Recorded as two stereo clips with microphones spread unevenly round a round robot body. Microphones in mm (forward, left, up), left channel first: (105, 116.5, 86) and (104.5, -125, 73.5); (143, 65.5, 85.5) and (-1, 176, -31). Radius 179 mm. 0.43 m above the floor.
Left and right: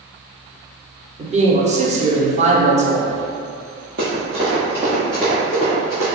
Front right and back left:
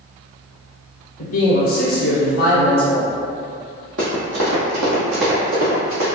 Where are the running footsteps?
145° right, 0.7 m; by 6.1 s 165° left, 1.6 m.